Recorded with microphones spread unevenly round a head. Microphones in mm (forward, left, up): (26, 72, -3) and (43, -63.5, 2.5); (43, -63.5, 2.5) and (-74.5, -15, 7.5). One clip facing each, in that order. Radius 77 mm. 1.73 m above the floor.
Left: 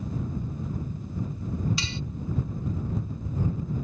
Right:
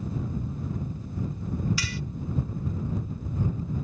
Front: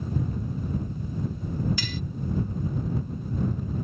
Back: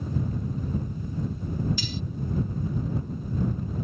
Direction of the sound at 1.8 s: 30° left.